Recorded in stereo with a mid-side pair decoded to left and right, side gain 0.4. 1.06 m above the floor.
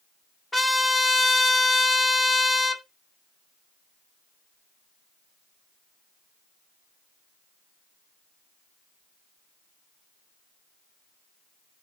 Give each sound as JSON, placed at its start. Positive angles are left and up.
{"t": 0.5, "sound": "a trumpet", "azimuth_deg": 15, "distance_m": 1.9}